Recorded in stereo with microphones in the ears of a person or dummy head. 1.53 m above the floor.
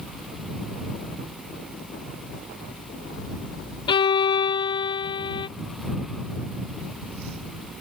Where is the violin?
25° left (ahead or behind).